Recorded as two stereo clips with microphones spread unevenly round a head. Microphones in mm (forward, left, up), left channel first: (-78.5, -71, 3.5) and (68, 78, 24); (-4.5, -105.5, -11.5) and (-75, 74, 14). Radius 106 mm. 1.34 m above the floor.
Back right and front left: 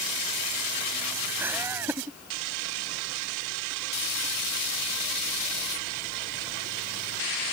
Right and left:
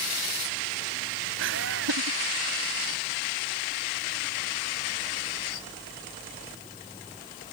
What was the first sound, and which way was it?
Laughter, 125° left.